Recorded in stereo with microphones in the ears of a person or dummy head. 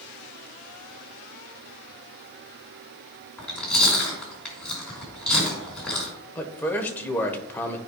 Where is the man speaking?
10° left (ahead or behind), 1.0 m.